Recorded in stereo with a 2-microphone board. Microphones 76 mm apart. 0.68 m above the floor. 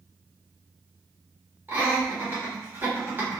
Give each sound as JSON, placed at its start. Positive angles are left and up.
{"t": 1.7, "sound": "laughter", "side_deg": -25, "distance_m": 1.4}